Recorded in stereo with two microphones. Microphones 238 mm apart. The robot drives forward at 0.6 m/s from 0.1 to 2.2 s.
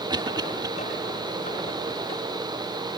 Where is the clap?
I don't hear a clap.